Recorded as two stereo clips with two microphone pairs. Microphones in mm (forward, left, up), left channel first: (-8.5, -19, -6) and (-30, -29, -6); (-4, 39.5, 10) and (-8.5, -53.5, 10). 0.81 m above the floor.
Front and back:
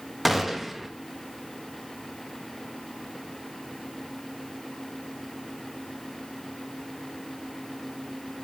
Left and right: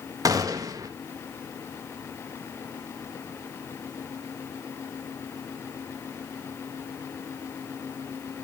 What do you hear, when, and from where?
0.2 s a gunshot: 75° right, 0.9 m